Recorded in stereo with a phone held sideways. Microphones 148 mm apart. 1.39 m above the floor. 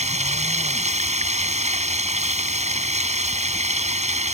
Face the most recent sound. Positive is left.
turn(degrees=-50)  # may be behind; listen again after turning